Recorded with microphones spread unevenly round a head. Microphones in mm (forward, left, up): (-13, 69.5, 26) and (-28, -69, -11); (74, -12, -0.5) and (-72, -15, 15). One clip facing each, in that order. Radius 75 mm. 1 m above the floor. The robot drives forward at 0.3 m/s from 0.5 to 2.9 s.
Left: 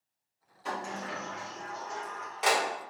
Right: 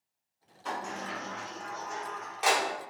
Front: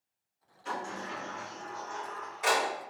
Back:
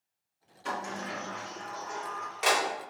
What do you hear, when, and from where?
0.7 s a sliding door: 160° left, 0.8 m; by 2.6 s 170° left, 1.4 m